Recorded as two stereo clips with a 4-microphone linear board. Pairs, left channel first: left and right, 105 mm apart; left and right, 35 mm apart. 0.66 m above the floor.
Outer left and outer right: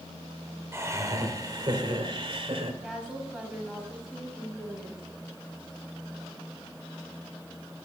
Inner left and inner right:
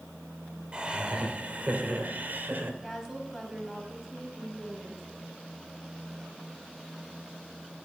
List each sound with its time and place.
0.7 s laughter: 25° right (ahead or behind), 2.5 m; by 2.7 s 60° right (ahead or behind), 2.5 m
2.8 s a woman speaking: 5° right (ahead or behind), 4 m